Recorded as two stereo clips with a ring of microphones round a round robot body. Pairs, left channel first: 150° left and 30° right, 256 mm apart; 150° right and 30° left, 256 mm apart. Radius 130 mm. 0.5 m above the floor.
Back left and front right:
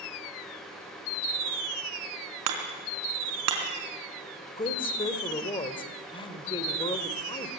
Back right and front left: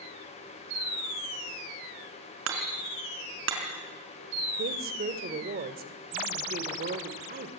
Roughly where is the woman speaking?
Left.